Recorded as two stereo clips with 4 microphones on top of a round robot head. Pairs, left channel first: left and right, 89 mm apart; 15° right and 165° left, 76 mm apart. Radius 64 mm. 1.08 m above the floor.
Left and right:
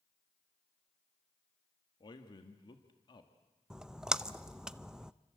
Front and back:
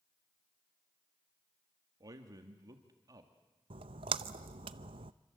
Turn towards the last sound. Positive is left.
turn(degrees=-175)